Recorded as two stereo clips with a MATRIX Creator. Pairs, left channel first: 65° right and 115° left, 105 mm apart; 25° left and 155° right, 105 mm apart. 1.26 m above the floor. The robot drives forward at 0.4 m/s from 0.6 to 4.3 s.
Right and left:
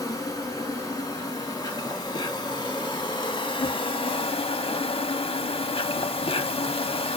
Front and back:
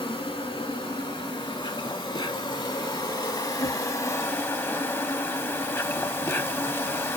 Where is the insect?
15° right, 2.0 m; by 7.2 s 45° right, 0.7 m.